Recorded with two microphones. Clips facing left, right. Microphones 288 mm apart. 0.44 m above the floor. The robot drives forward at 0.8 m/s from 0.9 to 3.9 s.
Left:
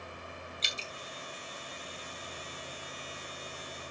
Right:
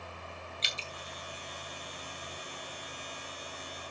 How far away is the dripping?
About 3 m.